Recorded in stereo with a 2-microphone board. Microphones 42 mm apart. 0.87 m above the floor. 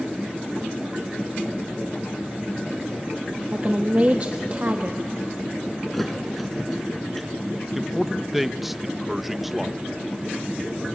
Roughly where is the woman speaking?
Right.